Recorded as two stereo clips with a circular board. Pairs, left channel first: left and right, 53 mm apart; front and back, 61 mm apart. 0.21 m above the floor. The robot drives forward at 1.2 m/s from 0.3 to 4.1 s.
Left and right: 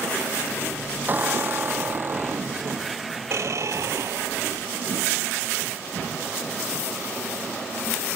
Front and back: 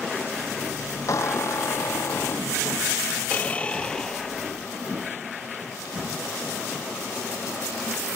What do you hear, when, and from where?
1.1 s a squeak: 35° right; by 4.7 s 80° right